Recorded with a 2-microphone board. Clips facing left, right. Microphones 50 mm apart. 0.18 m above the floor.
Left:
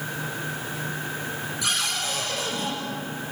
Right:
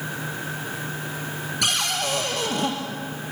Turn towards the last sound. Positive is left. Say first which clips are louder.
# right 4 dB
turn(degrees=-65)  # may be behind; listen again after turning